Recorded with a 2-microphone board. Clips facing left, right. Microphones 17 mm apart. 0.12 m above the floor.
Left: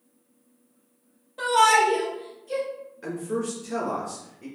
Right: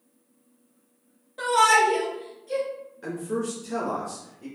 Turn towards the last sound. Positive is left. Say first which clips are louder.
# even
turn(degrees=5)  # may be behind; listen again after turning